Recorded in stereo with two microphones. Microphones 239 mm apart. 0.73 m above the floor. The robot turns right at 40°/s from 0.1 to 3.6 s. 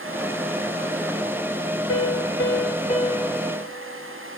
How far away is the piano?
About 1.6 m.